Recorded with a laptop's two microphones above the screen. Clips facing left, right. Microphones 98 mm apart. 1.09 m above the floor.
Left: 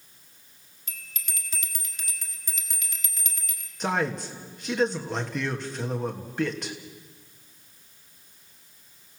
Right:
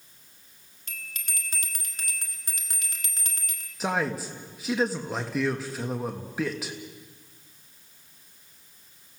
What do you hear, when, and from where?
0.9 s a bell: 50° right (ahead or behind), 2 m
3.8 s a man speaking: 5° right (ahead or behind), 1.5 m